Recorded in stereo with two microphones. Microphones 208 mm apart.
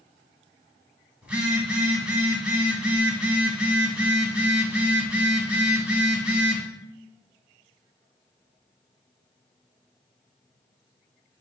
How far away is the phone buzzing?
About 0.5 m.